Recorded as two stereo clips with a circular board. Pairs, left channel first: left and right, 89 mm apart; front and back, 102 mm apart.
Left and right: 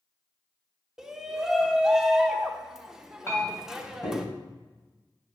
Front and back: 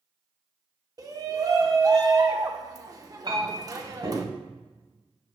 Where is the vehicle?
I don't hear a vehicle.